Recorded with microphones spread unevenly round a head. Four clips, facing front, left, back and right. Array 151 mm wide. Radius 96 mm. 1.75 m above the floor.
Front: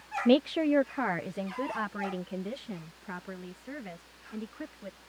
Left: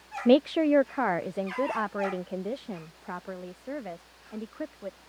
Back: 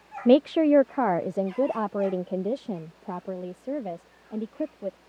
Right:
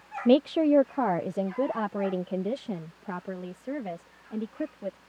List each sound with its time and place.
0.2 s a woman speaking: 155° left; by 5.0 s straight behind